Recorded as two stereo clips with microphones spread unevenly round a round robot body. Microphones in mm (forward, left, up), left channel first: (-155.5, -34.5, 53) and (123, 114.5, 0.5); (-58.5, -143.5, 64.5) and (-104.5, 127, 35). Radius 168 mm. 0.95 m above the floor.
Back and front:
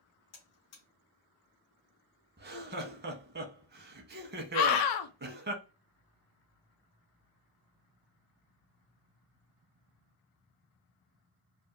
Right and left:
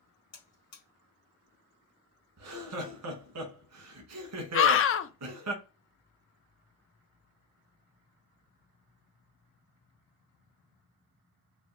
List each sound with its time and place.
0.3 s a buzzer: 100° right, 1.5 m
2.4 s laughter: 80° left, 1.0 m
4.5 s a scream: 125° right, 0.6 m